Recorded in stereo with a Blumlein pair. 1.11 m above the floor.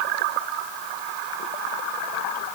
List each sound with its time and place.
Only background noise.